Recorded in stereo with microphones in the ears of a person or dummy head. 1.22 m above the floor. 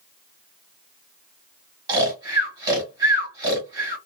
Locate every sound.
1.9 s snoring: 20° right (ahead or behind), 1.9 m